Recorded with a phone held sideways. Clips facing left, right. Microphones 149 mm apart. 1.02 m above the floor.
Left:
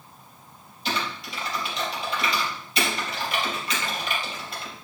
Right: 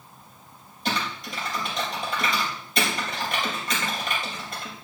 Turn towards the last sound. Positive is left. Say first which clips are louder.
# right 1 dB
turn(degrees=-50)  # may be behind; listen again after turning